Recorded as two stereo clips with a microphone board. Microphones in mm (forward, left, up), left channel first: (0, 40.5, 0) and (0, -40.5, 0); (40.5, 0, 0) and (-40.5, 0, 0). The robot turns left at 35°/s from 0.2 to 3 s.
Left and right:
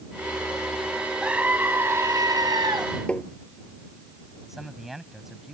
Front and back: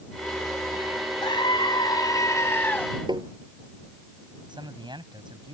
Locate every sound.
1.2 s a scream: 10° right; by 2.9 s 70° right
3.1 s tapping: 165° left
4.5 s a man speaking: 175° right